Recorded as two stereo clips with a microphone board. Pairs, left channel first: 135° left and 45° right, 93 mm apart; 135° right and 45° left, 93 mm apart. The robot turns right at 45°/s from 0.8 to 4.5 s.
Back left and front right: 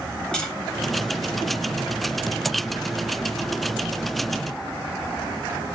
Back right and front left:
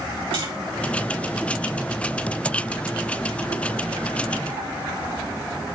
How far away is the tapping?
About 4.5 m.